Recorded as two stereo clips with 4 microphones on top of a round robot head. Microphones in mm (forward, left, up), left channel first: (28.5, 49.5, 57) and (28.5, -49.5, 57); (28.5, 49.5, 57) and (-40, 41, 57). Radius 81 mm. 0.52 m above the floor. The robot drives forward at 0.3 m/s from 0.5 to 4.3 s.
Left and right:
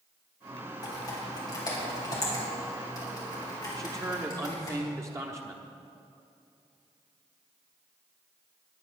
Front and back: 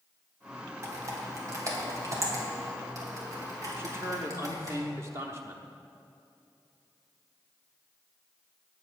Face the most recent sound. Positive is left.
turn(degrees=-140)